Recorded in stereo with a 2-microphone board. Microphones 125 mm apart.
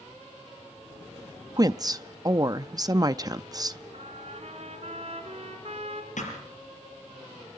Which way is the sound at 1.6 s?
30° right (ahead or behind).